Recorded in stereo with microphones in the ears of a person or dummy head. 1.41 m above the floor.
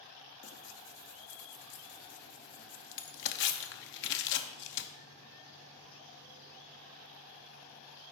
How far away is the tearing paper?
About 0.7 m.